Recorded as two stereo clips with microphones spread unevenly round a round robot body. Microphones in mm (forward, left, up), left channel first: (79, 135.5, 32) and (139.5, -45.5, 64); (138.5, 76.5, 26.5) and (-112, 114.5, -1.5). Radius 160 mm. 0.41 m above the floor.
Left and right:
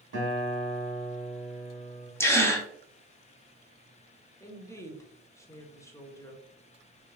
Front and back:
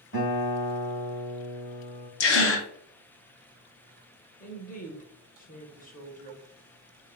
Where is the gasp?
30° left, 0.9 m.